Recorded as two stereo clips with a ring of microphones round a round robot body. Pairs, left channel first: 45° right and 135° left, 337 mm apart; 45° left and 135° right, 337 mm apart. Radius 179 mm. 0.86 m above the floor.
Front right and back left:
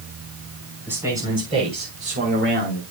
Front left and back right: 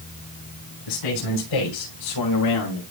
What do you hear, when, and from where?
0.9 s a man speaking: 50° left, 3.5 m; by 2.8 s 90° left, 4 m